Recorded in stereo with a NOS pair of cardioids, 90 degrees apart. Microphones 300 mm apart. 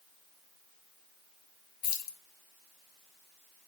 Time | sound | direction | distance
1.8 | keys jangling | 55° left | 0.7 m